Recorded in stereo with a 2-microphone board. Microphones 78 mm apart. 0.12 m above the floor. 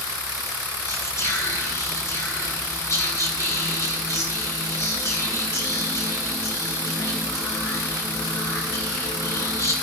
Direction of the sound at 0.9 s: 40° left (ahead or behind).